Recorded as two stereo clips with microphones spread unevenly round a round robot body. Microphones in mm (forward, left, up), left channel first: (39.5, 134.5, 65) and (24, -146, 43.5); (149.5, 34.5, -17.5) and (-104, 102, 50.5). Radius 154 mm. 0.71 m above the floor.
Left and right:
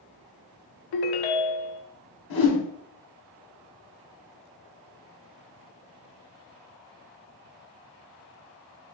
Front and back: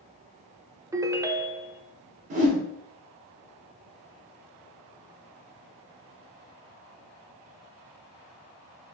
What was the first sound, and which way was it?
A ringtone, 85° left.